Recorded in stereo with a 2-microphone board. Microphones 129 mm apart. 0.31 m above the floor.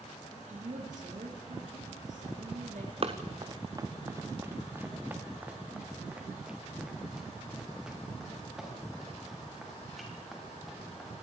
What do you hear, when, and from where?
0.5 s a woman speaking: 75° right (ahead or behind), 6 m
3.0 s running footsteps: 50° right (ahead or behind), 1.6 m; by 11.1 s centre (ahead or behind), 10 m